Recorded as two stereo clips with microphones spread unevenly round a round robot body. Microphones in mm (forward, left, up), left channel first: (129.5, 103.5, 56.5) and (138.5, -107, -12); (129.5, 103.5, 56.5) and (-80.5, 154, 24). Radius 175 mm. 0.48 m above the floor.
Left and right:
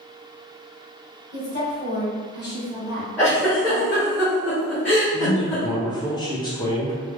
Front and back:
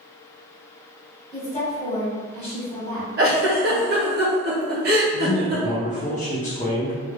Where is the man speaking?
Straight ahead, 0.7 m.